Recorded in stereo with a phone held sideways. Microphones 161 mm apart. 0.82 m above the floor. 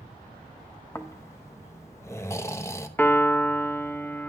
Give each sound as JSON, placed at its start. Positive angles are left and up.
{"t": 0.9, "sound": "snoring", "side_deg": 15, "distance_m": 0.7}
{"t": 3.0, "sound": "a piano", "side_deg": 10, "distance_m": 0.7}